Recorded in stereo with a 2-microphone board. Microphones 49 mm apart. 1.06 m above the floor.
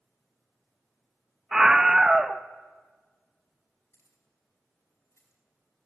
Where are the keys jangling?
65° left (ahead or behind), 6 m.